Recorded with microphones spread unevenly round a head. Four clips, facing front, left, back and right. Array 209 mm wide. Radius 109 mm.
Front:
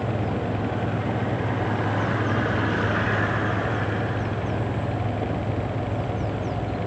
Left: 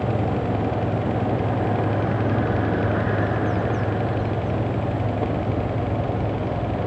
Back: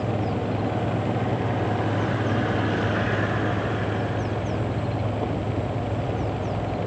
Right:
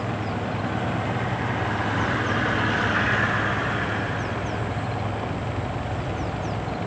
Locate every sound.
Only background noise.